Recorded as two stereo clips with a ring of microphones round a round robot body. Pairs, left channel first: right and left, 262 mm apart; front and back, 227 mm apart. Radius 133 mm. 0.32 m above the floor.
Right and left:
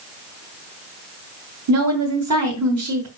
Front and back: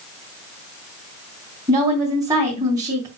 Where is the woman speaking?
105° left, 3.5 m.